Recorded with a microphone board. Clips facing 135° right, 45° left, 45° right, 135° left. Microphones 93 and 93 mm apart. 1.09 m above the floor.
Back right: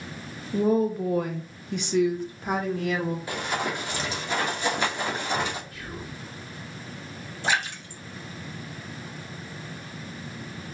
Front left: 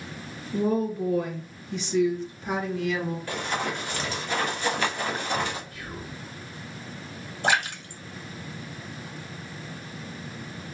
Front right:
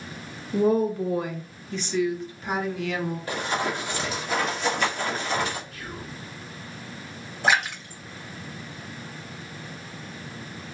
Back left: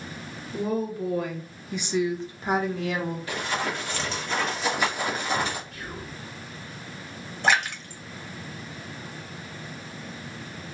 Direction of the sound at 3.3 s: 70° right.